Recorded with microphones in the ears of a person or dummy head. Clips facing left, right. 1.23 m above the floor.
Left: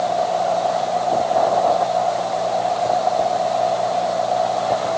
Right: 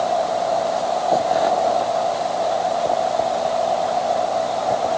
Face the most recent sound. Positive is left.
No sound to turn to.